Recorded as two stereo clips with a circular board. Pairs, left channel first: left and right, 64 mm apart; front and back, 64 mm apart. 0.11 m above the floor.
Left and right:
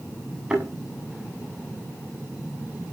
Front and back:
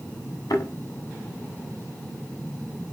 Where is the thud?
15° right, 8 m.